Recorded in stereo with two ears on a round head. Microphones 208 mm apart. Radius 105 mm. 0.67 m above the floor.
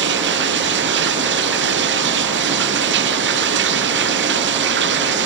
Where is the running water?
55° right (ahead or behind).